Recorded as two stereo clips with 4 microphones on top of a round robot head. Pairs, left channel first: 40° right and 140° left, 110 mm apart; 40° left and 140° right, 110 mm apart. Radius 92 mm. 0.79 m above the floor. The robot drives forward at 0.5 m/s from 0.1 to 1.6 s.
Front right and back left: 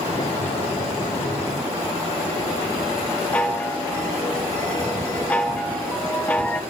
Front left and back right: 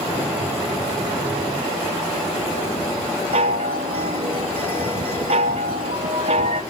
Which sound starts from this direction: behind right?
A chime, at 3.3 s.